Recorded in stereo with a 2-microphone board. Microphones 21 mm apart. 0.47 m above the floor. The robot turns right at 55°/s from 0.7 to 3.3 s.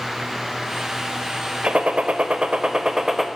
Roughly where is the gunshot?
Right.